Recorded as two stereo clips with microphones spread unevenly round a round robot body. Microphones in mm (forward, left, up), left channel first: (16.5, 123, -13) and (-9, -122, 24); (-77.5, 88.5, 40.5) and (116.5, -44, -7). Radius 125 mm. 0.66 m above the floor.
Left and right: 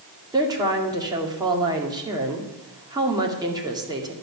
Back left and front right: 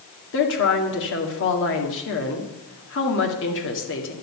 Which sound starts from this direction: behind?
A woman speaking, at 0.3 s.